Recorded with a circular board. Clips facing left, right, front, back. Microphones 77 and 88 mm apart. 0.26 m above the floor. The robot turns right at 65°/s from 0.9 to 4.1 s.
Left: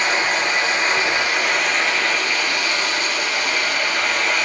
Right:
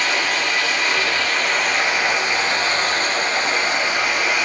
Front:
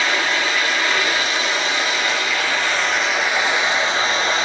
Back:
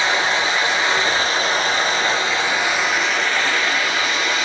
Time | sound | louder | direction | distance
0.0 | running water | left 1 dB, back 1 dB | 135° left | 0.9 m